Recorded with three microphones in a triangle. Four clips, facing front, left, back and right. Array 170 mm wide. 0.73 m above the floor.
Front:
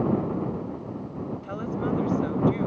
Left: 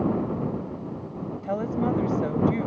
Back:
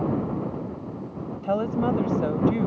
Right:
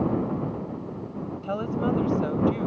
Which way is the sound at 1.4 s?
165° left.